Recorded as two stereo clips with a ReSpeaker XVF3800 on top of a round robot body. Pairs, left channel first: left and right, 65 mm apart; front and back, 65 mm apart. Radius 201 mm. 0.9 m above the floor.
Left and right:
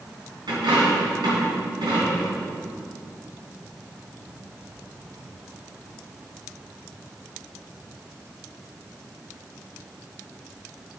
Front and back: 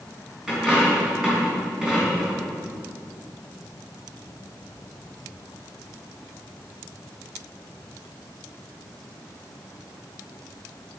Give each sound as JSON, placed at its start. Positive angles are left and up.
{"t": 0.5, "sound": "a dropped coin", "azimuth_deg": -100, "distance_m": 3.5}